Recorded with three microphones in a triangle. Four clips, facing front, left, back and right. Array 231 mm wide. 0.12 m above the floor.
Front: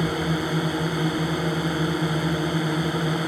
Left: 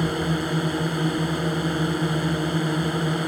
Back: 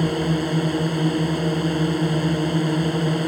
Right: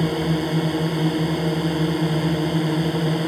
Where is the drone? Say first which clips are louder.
Right 3 dB, back 3 dB; 145° right.